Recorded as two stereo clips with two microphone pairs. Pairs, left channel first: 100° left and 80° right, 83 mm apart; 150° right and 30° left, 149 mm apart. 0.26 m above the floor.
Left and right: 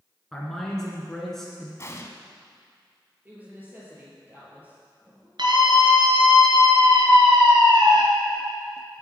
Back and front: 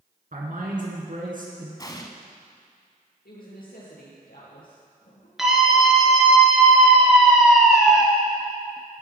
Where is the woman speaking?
150° right, 6.5 m.